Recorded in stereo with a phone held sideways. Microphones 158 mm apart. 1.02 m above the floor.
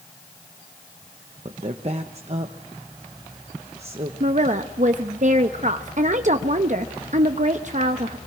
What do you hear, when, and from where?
1.4 s a woman speaking: 45° right (ahead or behind), 1.0 m
4.2 s a woman speaking: 50° right (ahead or behind), 0.8 m